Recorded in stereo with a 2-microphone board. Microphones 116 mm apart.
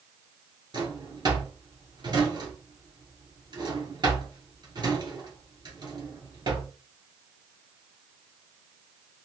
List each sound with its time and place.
0.7 s a drawer: 40° right (ahead or behind), 1.4 m